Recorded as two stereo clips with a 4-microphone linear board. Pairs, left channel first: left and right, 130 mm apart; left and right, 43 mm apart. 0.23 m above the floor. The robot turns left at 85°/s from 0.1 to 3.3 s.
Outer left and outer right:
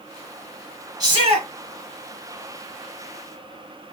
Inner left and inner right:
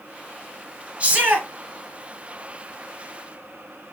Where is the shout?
35° right, 2 m; by 1.5 s 75° right, 2 m.